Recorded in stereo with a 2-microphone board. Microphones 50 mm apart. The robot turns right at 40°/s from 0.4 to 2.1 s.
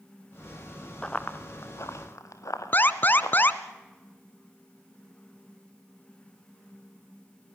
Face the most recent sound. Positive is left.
turn(degrees=40)  # may be behind; listen again after turning